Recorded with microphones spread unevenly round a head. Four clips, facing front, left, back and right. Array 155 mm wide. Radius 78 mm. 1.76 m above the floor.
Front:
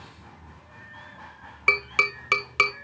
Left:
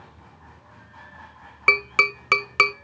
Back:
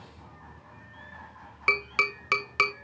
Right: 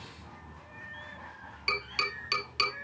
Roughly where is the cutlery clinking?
No cutlery clinking in this recording.